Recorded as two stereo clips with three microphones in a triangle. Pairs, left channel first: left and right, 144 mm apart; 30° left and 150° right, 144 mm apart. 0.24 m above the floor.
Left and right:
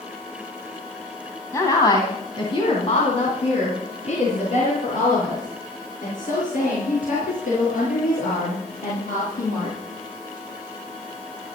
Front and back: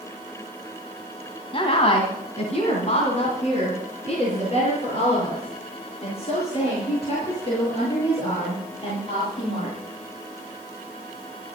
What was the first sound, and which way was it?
A woman speaking, 30° left.